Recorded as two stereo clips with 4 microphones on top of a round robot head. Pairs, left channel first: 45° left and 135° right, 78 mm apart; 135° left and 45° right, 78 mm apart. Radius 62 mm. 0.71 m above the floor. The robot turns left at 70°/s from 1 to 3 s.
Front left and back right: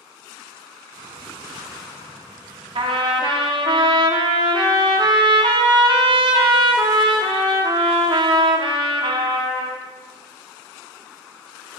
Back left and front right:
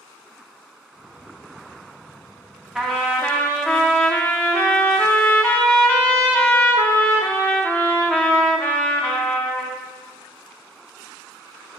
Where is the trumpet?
135° right, 0.7 m; by 9.8 s 150° right, 0.7 m.